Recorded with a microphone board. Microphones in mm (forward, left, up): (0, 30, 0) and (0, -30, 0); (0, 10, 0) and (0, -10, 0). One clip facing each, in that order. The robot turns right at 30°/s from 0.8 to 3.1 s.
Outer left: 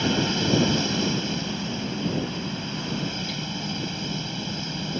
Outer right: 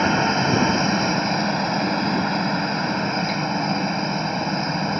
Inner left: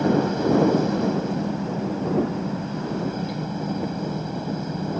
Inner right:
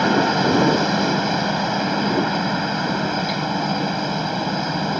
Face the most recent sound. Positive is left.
turn(degrees=-60)